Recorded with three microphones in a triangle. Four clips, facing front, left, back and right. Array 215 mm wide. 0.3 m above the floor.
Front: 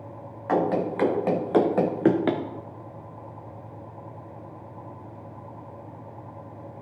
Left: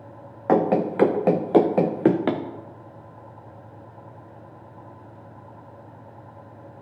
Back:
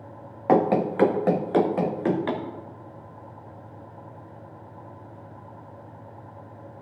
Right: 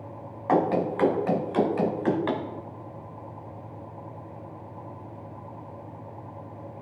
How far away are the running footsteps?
About 1.7 m.